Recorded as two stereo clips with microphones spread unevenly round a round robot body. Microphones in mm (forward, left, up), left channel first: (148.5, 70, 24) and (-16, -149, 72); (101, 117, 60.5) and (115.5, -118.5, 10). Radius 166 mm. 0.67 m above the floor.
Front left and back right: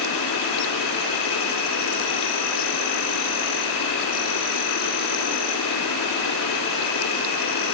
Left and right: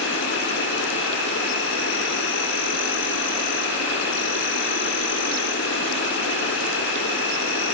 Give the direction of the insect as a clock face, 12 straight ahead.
10 o'clock.